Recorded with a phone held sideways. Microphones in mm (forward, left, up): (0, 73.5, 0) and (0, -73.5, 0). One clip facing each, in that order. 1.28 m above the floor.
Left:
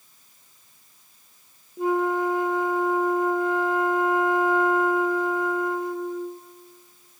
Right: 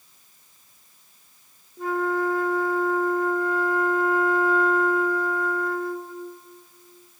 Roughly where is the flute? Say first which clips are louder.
Left 2 dB; centre.